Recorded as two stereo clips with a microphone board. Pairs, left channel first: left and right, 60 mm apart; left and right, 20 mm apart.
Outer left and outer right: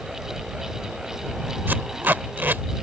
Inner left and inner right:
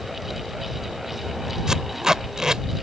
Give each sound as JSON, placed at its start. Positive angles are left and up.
{"t": 1.7, "sound": "tape being pulled", "side_deg": -35}